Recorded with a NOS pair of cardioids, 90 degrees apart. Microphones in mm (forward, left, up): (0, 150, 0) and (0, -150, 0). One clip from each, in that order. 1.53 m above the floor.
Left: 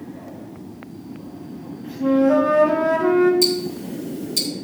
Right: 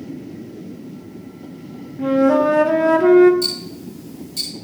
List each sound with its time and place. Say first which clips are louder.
2.0 s a flute: right 2 dB; 25° right, 1.4 m
3.4 s ticking: left 4 dB; 55° left, 3.5 m